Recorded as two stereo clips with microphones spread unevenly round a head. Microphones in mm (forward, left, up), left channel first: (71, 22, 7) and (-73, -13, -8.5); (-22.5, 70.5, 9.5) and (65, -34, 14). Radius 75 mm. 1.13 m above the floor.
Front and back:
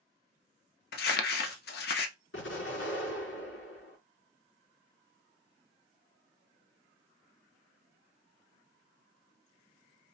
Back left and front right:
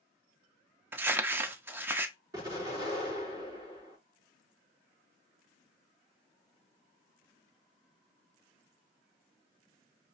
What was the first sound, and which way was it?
Crumpling, 25° left.